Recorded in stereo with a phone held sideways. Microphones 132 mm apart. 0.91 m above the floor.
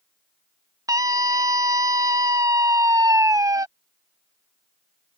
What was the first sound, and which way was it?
A scream, 25° right (ahead or behind).